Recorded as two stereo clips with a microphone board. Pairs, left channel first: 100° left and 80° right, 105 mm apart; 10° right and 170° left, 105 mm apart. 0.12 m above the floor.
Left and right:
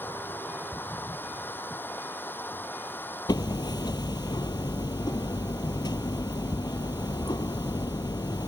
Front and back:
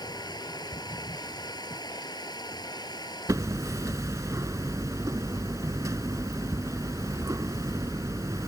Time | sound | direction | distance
0.0 | running water | 30° left | ?
3.3 | hammering | 120° left | ?